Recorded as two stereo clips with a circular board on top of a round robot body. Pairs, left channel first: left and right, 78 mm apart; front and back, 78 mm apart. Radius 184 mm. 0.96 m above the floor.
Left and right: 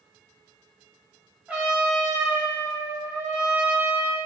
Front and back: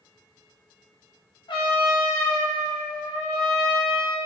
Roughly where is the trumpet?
Ahead.